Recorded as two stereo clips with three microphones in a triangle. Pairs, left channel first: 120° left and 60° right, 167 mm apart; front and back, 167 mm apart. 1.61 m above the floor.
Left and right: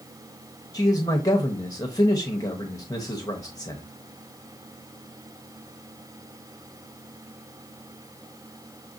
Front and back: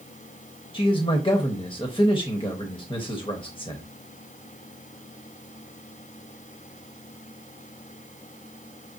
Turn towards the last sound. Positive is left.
turn(degrees=55)